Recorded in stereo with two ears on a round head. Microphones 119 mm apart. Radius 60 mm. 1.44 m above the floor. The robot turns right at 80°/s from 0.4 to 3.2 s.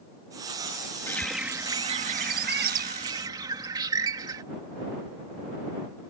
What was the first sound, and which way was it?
A bird, 160° left.